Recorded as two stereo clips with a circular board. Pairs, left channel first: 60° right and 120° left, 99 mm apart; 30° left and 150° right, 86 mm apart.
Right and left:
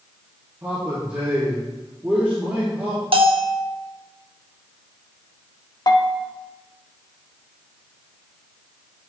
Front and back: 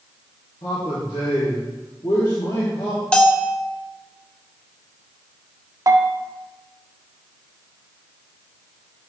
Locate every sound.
0.6 s a man speaking: 45° left, 2.0 m
3.1 s a bell: 105° left, 0.7 m
5.9 s a bell: 105° right, 0.6 m